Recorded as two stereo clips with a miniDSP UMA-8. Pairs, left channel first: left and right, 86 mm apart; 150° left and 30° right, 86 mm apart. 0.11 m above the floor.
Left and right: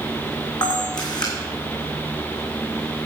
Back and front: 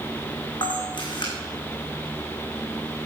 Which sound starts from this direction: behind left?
A camera shutter, at 0.6 s.